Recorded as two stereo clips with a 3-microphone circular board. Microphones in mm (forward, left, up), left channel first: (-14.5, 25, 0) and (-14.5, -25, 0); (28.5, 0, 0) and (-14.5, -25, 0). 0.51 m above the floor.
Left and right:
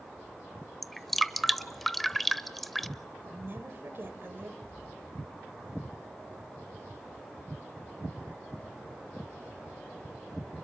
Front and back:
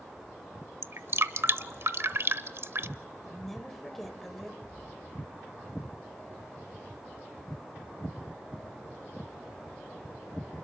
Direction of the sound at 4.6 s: 85° left.